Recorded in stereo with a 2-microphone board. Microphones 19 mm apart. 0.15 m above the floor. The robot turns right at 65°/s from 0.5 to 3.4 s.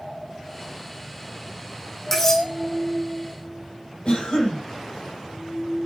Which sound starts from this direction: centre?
Cutlery clinking, at 2.1 s.